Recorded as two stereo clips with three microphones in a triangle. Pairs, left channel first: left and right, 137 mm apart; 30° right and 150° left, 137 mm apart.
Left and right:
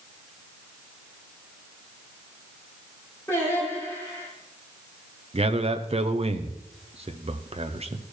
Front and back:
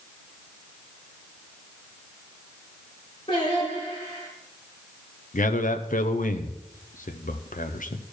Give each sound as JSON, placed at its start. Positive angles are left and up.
{"t": 3.3, "sound": "singing", "azimuth_deg": 20, "distance_m": 5.5}
{"t": 5.3, "sound": "a man speaking", "azimuth_deg": -45, "distance_m": 0.8}